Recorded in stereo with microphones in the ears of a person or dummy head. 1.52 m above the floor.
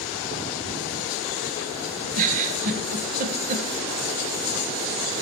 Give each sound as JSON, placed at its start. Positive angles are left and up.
{"t": 2.1, "sound": "a giggle", "side_deg": -45, "distance_m": 1.1}